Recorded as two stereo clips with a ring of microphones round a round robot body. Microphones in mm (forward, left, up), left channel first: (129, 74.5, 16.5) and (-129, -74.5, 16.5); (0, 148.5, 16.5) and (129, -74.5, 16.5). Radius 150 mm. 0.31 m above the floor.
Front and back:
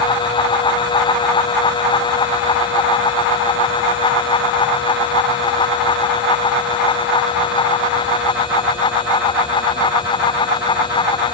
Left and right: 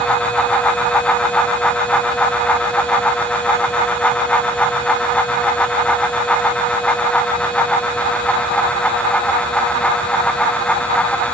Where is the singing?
No singing in this recording.